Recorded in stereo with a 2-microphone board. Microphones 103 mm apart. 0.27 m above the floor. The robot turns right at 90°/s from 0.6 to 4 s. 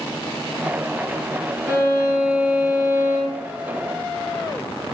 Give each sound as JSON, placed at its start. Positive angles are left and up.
{"t": 1.7, "sound": "a violin", "azimuth_deg": 125, "distance_m": 1.5}